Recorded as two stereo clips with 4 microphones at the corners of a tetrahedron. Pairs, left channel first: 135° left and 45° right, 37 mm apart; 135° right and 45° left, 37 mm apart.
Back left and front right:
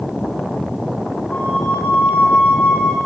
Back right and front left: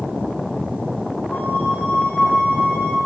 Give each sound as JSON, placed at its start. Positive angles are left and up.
{"t": 1.3, "sound": "a flute", "azimuth_deg": -175, "distance_m": 7.5}